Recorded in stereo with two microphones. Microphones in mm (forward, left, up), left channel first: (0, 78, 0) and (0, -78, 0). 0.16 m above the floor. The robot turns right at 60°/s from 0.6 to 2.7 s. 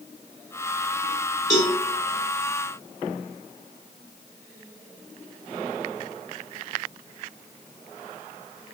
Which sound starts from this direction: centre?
A cowbell, at 1.5 s.